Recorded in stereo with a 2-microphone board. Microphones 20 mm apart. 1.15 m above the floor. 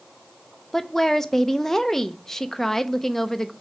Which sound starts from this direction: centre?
A woman speaking, at 0.7 s.